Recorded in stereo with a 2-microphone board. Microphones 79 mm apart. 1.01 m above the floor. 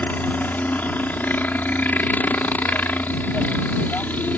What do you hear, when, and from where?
0.0 s a helicopter: 20° left (ahead or behind)